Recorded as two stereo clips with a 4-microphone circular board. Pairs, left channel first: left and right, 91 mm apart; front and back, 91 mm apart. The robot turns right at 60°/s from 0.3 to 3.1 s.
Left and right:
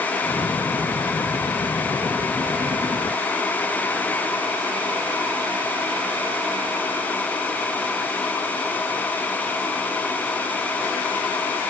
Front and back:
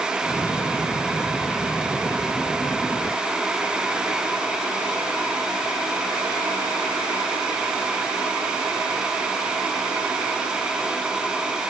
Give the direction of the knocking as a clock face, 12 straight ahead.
I don't hear knocking.